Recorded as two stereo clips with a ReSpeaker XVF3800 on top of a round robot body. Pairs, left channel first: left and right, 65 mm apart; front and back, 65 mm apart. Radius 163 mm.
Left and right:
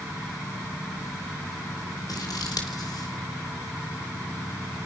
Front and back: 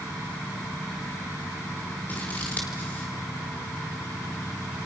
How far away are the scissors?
About 3.5 m.